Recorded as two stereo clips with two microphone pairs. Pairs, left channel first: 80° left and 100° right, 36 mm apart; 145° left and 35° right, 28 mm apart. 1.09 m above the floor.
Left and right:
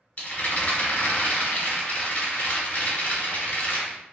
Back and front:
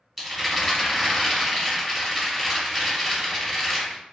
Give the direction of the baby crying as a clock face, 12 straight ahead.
No baby crying in this recording.